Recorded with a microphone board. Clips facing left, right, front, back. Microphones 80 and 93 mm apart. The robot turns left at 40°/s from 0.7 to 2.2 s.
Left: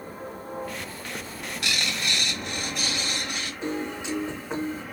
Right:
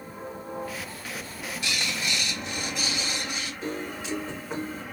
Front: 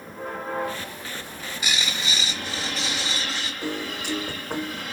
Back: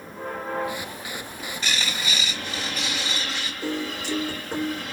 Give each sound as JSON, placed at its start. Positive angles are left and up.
{"t": 1.1, "sound": "a bird", "azimuth_deg": 100, "distance_m": 0.9}
{"t": 3.6, "sound": "a piano", "azimuth_deg": 20, "distance_m": 1.0}